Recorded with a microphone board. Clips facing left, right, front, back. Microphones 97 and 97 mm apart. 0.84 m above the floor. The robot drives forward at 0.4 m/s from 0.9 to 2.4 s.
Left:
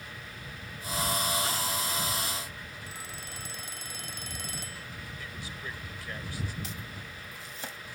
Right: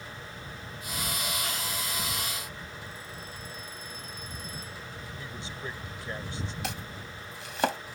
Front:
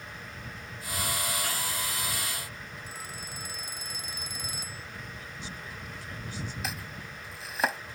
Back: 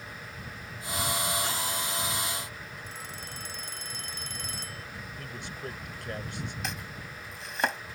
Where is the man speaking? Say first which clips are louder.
Right 4 dB, back 3 dB; 155° right.